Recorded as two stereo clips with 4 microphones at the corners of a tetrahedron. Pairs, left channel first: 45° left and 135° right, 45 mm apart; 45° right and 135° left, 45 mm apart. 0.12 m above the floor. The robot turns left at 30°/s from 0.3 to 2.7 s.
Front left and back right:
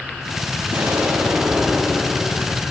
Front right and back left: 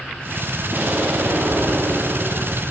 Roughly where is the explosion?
Behind.